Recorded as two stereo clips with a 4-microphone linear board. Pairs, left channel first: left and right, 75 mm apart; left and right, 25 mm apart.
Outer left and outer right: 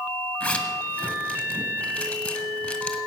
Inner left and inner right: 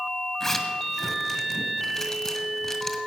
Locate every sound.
0.4 s a zipper: 20° left (ahead or behind), 1.9 m